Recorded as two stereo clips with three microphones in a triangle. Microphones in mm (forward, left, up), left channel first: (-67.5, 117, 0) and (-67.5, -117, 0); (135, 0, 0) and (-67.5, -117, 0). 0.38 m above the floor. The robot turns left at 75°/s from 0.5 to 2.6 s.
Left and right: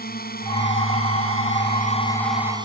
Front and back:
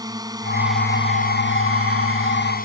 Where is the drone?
135° left; by 2.6 s 20° right.